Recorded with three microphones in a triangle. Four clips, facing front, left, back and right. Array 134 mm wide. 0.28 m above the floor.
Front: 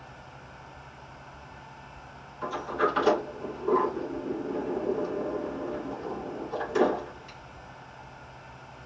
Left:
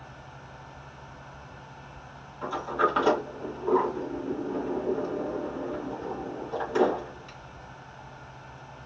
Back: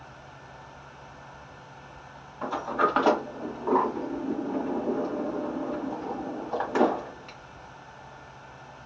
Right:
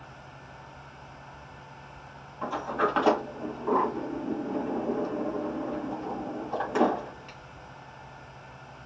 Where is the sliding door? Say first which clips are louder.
Left 1 dB, back 2 dB; 155° right, 2.5 m.